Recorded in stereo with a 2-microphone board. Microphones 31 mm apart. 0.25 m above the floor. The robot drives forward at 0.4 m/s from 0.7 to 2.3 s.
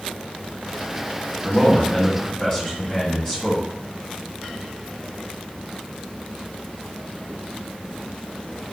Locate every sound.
1.4 s a man speaking: 20° left (ahead or behind), 1.4 m